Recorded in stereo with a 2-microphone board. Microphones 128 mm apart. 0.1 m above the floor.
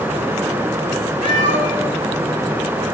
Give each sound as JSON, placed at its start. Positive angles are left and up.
{"t": 1.2, "sound": "a cat meowing", "side_deg": -65, "distance_m": 3.5}